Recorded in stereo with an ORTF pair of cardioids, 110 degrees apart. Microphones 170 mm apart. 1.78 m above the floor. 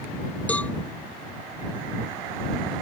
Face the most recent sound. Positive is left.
turn(degrees=10)